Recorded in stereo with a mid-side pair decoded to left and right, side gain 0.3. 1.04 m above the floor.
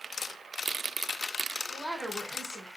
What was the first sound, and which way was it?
A woman speaking, 5° left.